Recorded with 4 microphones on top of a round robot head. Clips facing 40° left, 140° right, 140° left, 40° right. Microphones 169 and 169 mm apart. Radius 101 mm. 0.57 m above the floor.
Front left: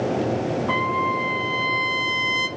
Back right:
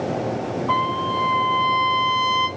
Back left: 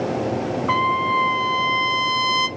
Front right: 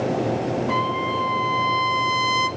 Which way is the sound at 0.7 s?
115° left.